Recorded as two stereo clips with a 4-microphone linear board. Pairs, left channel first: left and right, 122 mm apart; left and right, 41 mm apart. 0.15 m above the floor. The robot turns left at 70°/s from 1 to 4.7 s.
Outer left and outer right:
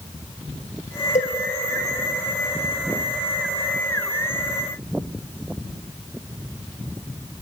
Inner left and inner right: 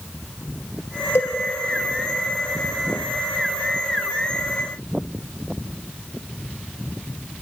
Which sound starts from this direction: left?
A cowbell, at 1.1 s.